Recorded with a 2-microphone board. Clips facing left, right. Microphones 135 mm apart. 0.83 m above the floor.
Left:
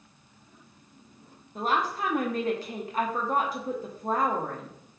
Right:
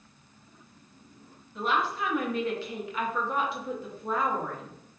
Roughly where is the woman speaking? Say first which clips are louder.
Left 1 dB; left.